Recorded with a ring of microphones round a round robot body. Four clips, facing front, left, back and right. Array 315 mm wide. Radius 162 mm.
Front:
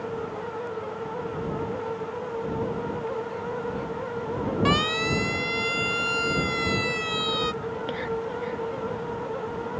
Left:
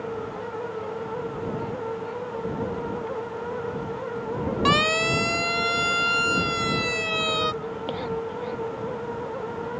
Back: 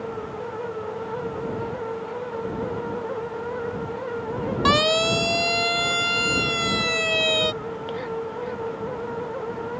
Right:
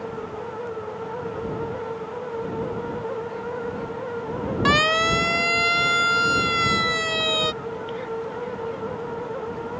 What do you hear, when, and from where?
4.7 s a siren: 160° right; by 7.5 s 150° right
7.6 s whispering: 65° left